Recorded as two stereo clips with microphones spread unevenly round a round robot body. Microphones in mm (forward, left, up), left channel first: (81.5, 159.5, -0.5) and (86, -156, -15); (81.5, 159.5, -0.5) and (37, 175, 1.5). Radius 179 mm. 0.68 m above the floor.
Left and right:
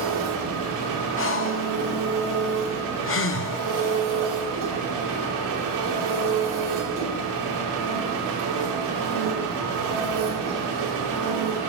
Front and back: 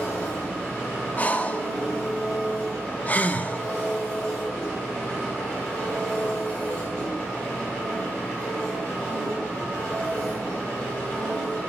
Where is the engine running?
80° right, 1.9 m.